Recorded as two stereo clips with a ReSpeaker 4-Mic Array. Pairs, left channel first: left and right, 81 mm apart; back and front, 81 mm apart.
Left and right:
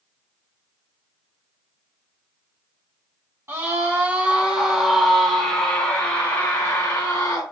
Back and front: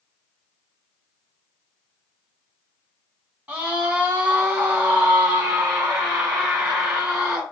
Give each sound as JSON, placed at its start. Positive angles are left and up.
{"t": 3.5, "sound": "a scream", "azimuth_deg": -60, "distance_m": 1.4}